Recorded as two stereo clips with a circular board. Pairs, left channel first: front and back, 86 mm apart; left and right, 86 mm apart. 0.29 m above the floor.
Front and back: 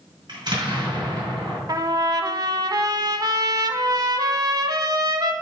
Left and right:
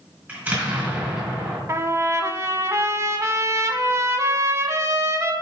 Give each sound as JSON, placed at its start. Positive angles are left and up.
{"t": 0.3, "sound": "an explosion", "azimuth_deg": -155, "distance_m": 3.5}
{"t": 1.7, "sound": "a trumpet", "azimuth_deg": -145, "distance_m": 0.8}